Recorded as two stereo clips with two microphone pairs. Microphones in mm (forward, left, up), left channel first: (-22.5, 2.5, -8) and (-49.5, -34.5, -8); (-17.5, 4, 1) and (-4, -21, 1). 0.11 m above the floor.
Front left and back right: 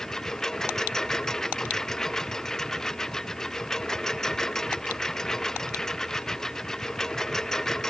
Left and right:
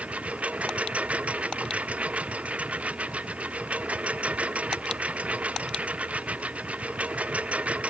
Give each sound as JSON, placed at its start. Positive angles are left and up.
{"t": 0.0, "sound": "a lawn mower", "azimuth_deg": -25}